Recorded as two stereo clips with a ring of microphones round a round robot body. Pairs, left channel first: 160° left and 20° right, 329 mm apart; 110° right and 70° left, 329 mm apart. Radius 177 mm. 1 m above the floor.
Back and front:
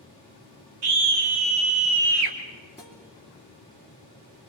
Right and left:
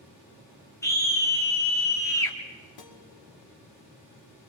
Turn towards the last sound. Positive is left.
turn(degrees=-110)